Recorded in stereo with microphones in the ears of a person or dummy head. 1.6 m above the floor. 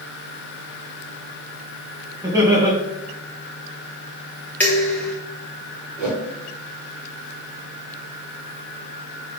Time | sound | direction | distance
2.2 | laughter | 15° right (ahead or behind) | 2 m
4.6 | dishes clattering | 10° left (ahead or behind) | 1.2 m
6.0 | a whoosh | centre (ahead or behind) | 3 m